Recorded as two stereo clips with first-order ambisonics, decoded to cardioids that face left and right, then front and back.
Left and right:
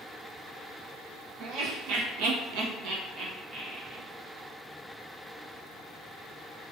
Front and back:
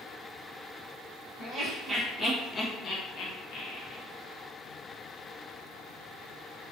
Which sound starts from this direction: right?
Laughter, at 1.4 s.